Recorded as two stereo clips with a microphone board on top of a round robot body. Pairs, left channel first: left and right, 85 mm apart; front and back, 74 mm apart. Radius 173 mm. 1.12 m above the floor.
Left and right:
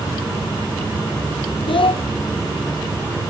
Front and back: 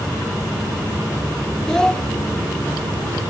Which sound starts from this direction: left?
A child speaking, at 1.7 s.